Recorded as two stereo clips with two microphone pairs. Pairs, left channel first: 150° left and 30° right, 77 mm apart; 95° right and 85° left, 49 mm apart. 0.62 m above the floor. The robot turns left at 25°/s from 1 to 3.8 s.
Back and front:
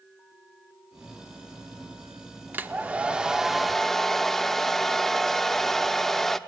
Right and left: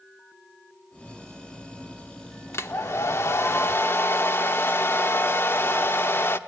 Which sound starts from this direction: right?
A hair dryer, at 2.5 s.